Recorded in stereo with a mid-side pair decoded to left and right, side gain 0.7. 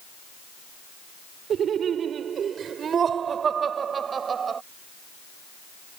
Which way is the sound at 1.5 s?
40° right.